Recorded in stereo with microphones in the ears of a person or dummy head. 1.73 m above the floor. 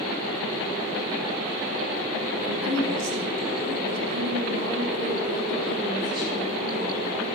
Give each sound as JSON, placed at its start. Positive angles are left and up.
{"t": 2.4, "sound": "a woman speaking", "side_deg": -70, "distance_m": 3.0}